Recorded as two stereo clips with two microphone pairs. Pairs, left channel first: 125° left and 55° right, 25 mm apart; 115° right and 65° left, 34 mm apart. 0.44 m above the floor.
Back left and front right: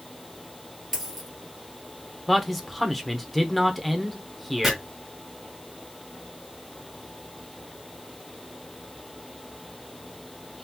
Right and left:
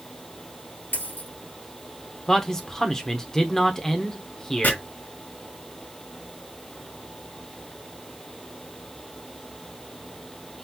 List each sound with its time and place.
0.9 s a dropped coin: 130° right, 1.5 m
2.3 s a man speaking: 150° right, 0.8 m
4.6 s chopping: 135° right, 1.6 m